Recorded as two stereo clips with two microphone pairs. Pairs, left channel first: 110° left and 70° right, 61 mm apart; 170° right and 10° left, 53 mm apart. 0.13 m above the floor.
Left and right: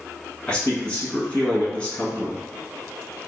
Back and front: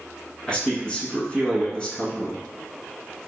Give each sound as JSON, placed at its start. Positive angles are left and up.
{"t": 0.5, "sound": "a man speaking", "azimuth_deg": 145, "distance_m": 1.2}